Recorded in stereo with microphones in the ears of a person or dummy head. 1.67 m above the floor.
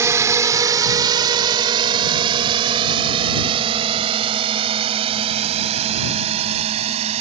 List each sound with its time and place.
0.0 s a drone: 15° right (ahead or behind); by 7.2 s 35° right (ahead or behind)